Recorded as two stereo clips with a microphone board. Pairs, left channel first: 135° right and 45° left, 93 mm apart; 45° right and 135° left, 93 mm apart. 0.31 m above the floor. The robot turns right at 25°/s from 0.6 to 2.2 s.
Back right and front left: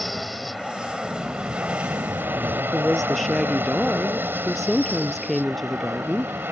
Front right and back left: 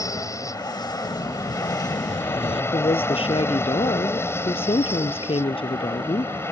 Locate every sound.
0.0 s an aircraft: 45° right; by 6.5 s 5° right
1.0 s an explosion: 55° right; by 2.6 s 30° right
2.7 s a woman speaking: 45° right